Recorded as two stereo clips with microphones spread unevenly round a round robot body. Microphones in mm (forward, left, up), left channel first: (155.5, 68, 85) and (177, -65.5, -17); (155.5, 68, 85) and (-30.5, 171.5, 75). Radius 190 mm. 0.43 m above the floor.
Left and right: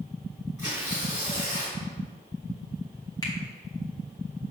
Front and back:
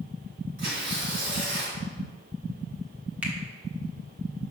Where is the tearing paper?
155° right, 2 m.